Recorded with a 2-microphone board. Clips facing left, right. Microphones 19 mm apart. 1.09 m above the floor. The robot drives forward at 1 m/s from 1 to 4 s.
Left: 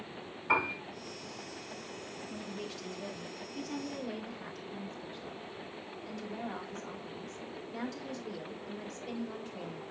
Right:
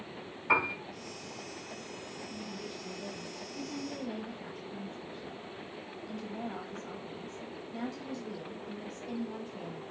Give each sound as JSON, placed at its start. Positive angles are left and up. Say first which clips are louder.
{"t": 0.5, "sound": "a piano", "louder": "right 2 dB", "side_deg": -10, "distance_m": 3.5}
{"t": 2.3, "sound": "a woman speaking", "louder": "left 2 dB", "side_deg": 65, "distance_m": 1.9}